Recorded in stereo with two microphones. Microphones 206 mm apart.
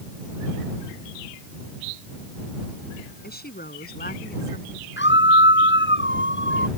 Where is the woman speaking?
50° left (ahead or behind).